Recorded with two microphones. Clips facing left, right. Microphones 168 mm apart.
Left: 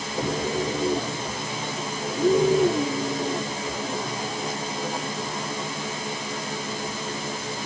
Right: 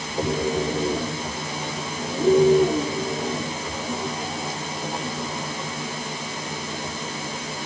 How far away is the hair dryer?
I don't hear a hair dryer.